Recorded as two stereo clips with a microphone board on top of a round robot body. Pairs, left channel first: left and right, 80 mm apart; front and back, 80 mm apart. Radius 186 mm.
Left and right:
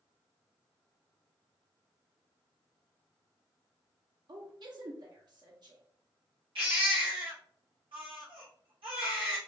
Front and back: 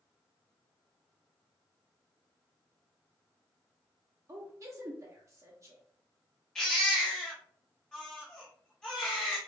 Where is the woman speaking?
125° right, 0.9 m.